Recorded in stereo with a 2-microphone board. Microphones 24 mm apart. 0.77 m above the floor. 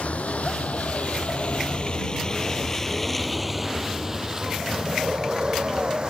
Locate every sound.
0.0 s a vehicle: 75° left (ahead or behind); by 6.1 s 40° right (ahead or behind)